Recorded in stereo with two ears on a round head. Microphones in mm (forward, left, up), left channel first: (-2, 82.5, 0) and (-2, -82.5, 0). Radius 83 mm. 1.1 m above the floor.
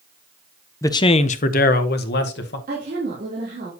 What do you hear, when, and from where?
0.8 s a man speaking: 15° left (ahead or behind), 0.6 m; by 2.6 s 65° left (ahead or behind), 1.2 m
2.7 s a woman speaking: 45° right (ahead or behind), 3 m